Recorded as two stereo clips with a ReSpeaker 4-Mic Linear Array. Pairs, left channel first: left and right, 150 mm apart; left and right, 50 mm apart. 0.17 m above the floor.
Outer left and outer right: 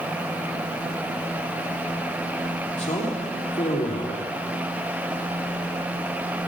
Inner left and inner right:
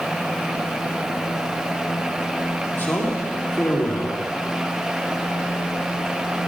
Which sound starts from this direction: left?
A man speaking, at 2.7 s.